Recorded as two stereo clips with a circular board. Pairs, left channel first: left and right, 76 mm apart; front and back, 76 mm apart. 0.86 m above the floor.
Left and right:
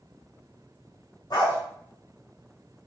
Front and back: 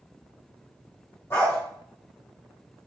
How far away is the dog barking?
About 1.1 m.